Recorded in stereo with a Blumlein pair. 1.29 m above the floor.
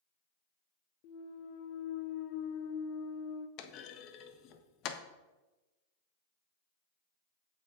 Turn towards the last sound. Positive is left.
turn(degrees=35)